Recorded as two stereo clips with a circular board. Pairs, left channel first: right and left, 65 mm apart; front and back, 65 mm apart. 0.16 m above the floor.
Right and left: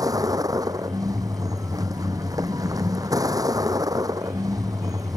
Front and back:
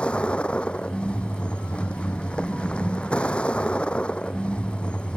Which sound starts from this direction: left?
A vehicle, at 0.0 s.